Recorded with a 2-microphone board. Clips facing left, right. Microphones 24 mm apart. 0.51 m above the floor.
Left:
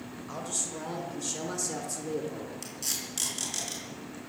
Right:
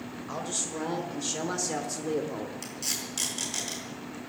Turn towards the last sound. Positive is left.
turn(degrees=-5)  # may be behind; listen again after turning